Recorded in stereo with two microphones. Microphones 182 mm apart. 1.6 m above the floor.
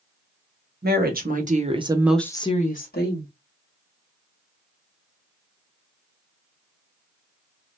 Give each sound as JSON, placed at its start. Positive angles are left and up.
{"t": 0.8, "sound": "a woman speaking", "side_deg": -60, "distance_m": 1.2}